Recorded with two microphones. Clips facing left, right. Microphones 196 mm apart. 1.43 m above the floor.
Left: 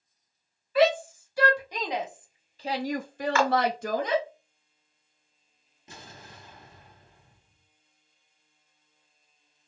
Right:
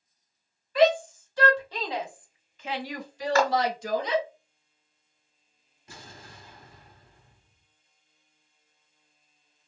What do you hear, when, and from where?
0.8 s a shout: 5° left (ahead or behind), 1.6 m; by 4.2 s 50° left (ahead or behind), 0.8 m
3.4 s a clap: 40° right (ahead or behind), 0.6 m
5.9 s an explosion: 25° left (ahead or behind), 1.4 m